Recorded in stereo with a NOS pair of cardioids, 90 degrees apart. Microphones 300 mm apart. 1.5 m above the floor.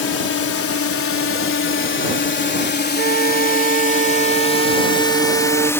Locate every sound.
0.0 s a drone: 50° left; by 5.8 s 10° left
3.0 s a flute: 35° right